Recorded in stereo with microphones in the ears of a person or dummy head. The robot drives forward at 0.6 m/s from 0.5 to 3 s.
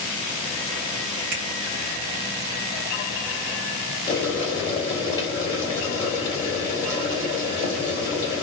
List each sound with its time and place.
1.3 s a finger snap: 40° right (ahead or behind), 2 m; by 1.4 s 45° right (ahead or behind), 2 m
4.1 s boiling: 15° left (ahead or behind), 1.7 m